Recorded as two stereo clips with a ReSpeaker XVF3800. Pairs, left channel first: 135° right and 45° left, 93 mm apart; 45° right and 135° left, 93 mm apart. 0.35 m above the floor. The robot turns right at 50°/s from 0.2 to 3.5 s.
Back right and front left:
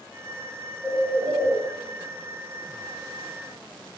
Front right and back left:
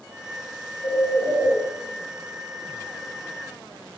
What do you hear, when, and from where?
0.8 s a bird: 35° right, 4 m; by 1.6 s 5° left, 4 m